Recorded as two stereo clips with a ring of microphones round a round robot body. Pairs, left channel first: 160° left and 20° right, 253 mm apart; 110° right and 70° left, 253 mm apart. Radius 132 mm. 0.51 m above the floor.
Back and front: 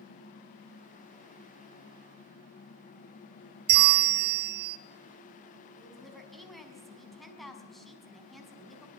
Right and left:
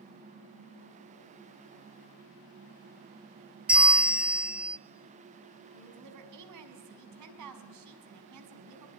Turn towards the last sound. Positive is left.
turn(degrees=70)